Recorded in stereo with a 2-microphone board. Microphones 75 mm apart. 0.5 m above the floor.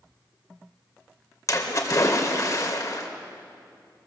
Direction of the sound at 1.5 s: 45° left (ahead or behind).